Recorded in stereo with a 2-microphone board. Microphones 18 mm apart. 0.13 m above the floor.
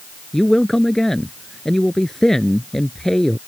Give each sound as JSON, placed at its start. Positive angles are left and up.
{"t": 0.3, "sound": "a man speaking", "side_deg": 25}